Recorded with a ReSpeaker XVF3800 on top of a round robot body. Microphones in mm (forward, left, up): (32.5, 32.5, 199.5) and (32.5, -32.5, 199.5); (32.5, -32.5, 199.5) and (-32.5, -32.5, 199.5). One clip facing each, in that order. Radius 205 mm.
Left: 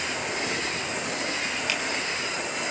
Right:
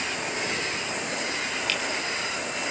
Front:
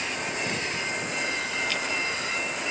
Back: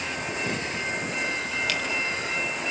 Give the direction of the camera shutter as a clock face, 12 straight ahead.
7 o'clock.